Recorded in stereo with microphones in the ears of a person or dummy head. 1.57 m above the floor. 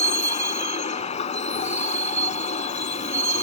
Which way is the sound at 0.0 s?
35° left (ahead or behind).